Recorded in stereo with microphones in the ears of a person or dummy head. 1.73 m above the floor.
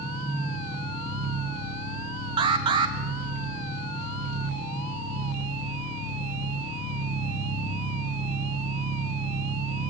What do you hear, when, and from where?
0.0 s an engine running: 40° right (ahead or behind), 6 m
2.4 s an alarm: 30° right (ahead or behind), 1.4 m